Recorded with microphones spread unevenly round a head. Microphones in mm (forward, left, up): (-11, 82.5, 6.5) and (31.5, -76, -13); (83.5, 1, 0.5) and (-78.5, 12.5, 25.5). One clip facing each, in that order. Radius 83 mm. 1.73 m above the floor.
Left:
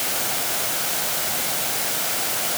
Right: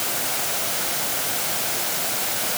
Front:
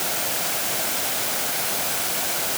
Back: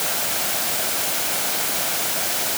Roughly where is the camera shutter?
I don't hear a camera shutter.